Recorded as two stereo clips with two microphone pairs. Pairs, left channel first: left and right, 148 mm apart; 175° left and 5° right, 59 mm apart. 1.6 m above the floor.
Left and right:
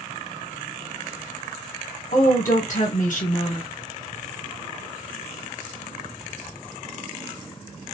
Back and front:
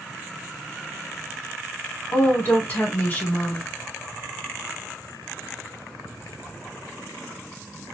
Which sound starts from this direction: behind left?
A woman speaking, at 2.1 s.